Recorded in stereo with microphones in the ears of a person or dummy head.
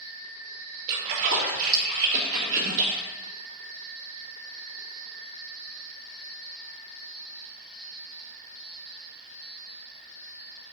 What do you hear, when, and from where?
0.9 s a splash: 55° right (ahead or behind), 1.8 m